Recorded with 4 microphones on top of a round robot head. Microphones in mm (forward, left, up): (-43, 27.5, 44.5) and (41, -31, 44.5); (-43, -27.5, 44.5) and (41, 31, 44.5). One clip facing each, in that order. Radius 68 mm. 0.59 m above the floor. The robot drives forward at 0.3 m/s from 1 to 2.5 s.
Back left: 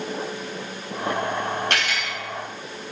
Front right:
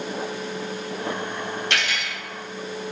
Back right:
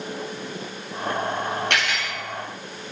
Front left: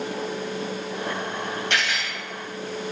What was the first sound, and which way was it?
Cutlery clinking, 170° right.